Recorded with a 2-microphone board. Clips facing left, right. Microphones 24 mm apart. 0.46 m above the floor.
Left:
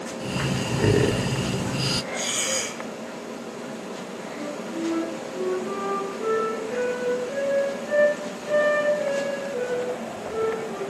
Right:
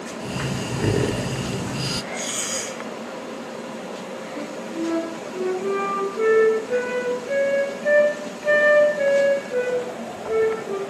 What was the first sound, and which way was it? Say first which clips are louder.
Breathing: left 1 dB; 10° left (ahead or behind).